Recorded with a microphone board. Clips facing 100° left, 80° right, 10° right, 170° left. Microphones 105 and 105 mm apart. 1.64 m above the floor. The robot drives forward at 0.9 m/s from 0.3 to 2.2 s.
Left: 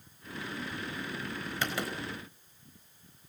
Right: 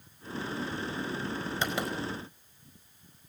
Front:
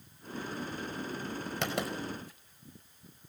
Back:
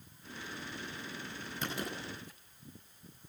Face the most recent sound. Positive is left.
turn(degrees=-15)